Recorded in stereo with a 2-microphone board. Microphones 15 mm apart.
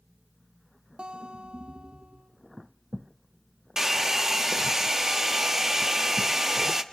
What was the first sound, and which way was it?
A guitar, 75° right (ahead or behind).